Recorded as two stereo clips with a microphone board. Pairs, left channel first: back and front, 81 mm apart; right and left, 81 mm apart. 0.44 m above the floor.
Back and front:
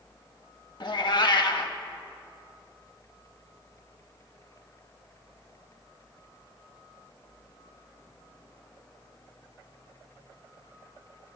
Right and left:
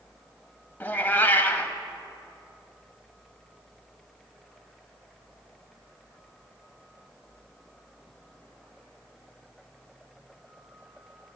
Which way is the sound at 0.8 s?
155° right.